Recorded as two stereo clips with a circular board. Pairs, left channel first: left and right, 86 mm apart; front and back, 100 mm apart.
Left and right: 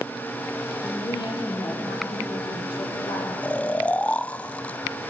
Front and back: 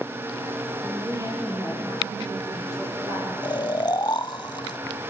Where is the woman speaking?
120° left, 7 m.